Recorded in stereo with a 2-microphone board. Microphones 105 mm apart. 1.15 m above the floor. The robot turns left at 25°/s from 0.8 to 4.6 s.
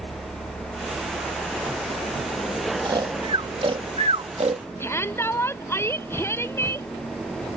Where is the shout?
25° left (ahead or behind).